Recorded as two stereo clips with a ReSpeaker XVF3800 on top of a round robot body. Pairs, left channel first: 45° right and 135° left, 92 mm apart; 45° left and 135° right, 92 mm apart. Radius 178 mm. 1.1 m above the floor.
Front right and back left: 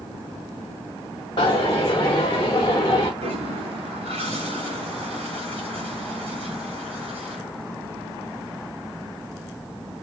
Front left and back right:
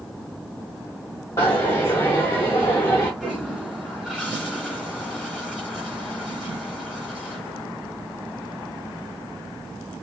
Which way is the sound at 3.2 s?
140° left.